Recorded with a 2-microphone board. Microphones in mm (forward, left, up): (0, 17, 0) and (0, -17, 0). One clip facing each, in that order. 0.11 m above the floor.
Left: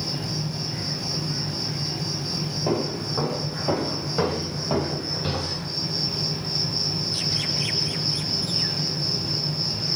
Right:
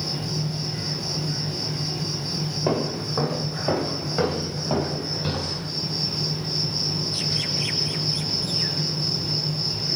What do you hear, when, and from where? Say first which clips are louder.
0.0 s an insect: right 1 dB; 20° right (ahead or behind), 2.5 m
2.7 s footsteps: right 1 dB; 20° right (ahead or behind), 2 m; by 5.7 s centre (ahead or behind), 3.5 m